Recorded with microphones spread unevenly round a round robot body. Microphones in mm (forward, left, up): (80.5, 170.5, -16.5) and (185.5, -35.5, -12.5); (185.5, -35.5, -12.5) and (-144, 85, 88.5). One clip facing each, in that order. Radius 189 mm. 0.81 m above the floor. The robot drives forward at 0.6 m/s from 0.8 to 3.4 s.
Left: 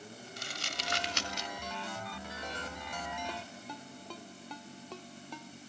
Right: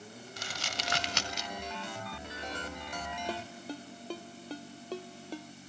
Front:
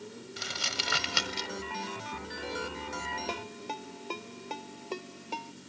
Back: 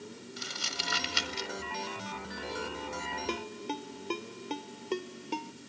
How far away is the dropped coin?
No dropped coin in this recording.